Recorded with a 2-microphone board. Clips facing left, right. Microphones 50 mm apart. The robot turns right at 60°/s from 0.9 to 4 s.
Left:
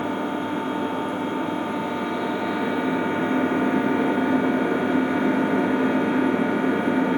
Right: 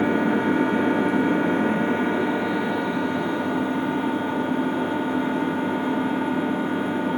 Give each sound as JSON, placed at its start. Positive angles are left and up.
{"t": 0.0, "sound": "an engine running", "azimuth_deg": -100, "distance_m": 2.0}